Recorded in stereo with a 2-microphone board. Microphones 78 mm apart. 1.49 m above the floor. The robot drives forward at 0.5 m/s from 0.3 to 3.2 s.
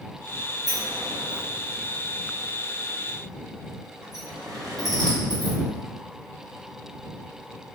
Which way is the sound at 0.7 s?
60° right (ahead or behind).